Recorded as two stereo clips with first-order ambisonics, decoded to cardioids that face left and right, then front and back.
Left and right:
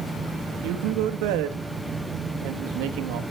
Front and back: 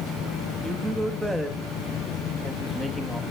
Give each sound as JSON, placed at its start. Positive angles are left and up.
{"t": 0.6, "sound": "a woman speaking", "azimuth_deg": -95, "distance_m": 1.4}